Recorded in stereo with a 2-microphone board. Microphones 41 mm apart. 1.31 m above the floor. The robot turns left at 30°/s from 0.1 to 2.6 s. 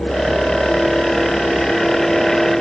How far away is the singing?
No singing in this recording.